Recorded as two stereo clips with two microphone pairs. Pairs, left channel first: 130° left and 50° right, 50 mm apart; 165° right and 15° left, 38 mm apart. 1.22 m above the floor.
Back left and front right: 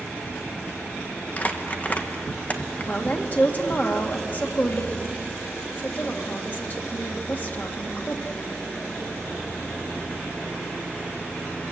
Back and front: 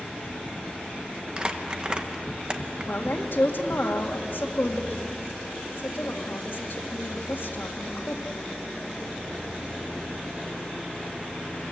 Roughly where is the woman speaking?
Behind.